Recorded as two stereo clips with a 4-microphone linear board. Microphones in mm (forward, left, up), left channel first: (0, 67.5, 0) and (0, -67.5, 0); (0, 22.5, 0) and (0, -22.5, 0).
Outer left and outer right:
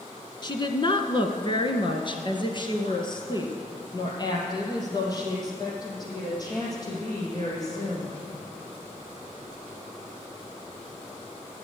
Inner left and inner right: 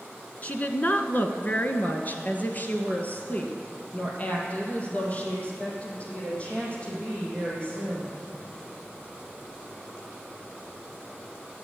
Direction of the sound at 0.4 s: 35° left (ahead or behind).